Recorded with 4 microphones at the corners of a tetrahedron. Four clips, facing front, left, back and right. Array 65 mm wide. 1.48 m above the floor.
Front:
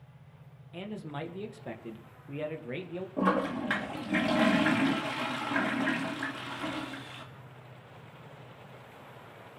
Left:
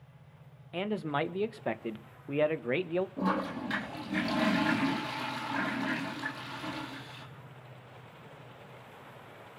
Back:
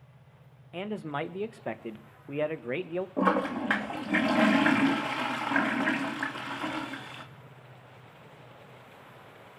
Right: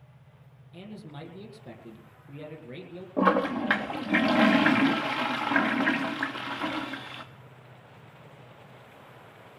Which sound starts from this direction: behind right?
A toilet flushing, at 3.2 s.